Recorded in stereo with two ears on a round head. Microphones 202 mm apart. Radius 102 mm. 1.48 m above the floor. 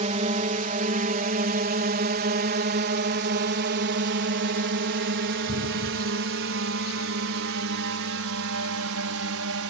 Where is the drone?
30° right (ahead or behind); by 9.7 s 65° right (ahead or behind).